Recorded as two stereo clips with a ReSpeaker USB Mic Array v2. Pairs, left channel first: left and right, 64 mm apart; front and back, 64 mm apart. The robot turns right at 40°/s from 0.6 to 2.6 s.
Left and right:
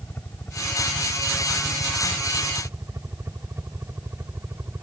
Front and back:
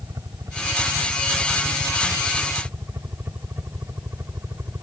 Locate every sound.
0.0 s a helicopter: 145° left; by 4.8 s 135° right